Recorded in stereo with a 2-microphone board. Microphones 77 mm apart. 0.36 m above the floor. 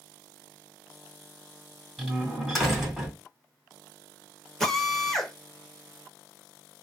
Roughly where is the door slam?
Centre.